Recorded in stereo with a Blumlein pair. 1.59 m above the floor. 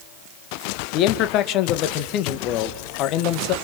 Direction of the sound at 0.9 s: 40° left.